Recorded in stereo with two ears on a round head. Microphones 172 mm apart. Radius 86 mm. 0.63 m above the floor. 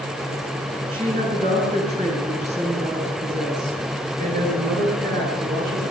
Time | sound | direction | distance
0.9 | a woman speaking | 30° right (ahead or behind) | 8 m